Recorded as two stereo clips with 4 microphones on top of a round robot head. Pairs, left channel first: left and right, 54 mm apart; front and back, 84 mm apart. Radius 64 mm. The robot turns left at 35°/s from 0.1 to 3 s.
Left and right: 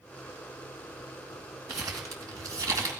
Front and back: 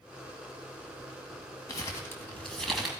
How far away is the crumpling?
About 2.5 m.